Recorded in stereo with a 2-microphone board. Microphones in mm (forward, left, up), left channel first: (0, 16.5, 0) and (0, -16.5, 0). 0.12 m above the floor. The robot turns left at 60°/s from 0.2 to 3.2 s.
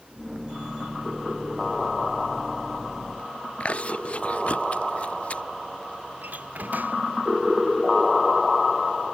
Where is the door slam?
60° right (ahead or behind).